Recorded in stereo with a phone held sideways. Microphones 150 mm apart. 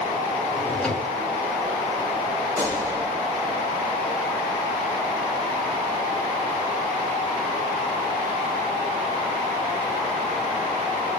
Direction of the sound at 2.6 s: 20° right (ahead or behind).